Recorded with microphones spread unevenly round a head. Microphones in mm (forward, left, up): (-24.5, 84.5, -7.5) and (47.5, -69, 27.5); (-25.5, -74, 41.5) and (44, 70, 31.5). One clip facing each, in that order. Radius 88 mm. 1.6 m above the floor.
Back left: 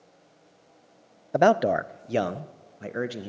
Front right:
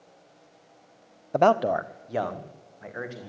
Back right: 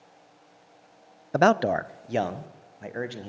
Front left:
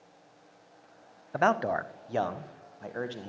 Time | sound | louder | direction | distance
1.3 | a man speaking | back left 1 dB, back right 6 dB | 160° right | 0.5 m